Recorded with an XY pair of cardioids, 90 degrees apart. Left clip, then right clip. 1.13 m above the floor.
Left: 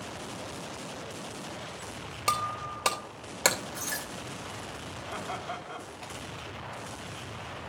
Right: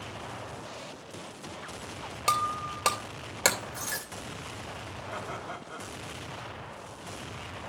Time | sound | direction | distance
2.3 | breaking glass | straight ahead | 2.5 m
5.1 | laughter | 20° left | 4.5 m